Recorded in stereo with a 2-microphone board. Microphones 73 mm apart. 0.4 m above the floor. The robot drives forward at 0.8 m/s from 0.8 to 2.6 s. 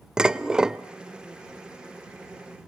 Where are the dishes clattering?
10° right (ahead or behind), 0.6 m.